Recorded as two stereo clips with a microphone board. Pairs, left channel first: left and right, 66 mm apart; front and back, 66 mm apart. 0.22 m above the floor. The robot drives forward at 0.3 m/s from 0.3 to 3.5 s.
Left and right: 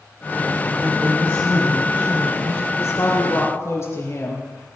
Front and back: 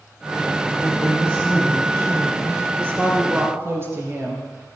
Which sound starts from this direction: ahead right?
A woman speaking, at 0.8 s.